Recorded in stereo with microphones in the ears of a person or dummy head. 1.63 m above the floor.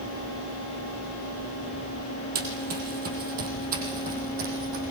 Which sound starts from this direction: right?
Running footsteps, at 2.4 s.